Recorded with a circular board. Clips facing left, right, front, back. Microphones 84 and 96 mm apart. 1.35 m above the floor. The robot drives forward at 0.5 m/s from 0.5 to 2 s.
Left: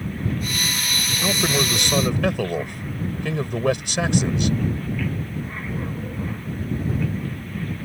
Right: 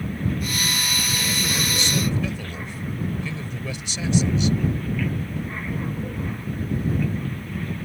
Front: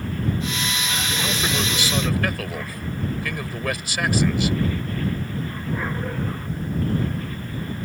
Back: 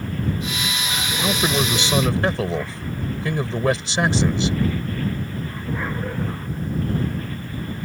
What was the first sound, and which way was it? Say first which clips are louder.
A man speaking: left 8 dB, back 6 dB; 115° left.